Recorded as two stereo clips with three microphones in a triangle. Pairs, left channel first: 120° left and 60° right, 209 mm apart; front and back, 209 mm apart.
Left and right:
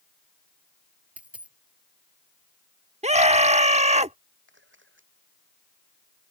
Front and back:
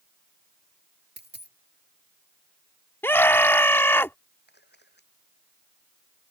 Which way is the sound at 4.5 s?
35° right.